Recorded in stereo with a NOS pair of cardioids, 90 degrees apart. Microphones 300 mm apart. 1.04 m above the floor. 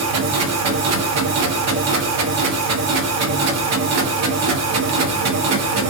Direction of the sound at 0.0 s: 65° right.